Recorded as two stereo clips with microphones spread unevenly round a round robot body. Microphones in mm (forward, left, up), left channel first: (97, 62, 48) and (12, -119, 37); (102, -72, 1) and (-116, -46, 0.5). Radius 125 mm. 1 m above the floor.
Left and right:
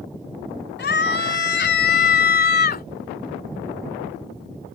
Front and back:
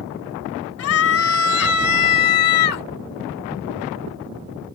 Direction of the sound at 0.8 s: 30° left.